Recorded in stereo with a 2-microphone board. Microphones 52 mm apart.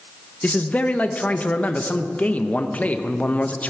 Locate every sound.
0.4 s a man speaking: 30° left (ahead or behind), 0.8 m